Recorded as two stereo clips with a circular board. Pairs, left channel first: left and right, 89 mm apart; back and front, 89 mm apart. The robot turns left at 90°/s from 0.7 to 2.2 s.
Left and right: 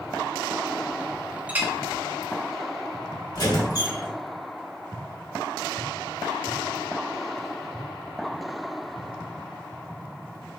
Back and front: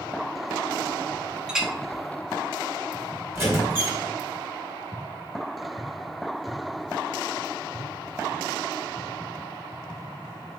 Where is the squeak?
55° left, 1.8 m.